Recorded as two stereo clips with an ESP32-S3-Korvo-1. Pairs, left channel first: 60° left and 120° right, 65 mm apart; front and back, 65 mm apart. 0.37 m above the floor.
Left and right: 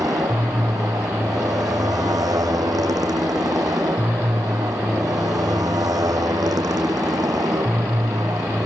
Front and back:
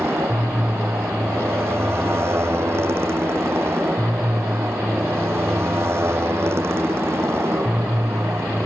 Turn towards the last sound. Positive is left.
turn(degrees=-130)